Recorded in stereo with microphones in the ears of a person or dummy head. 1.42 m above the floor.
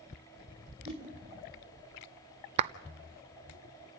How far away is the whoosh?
About 7.5 m.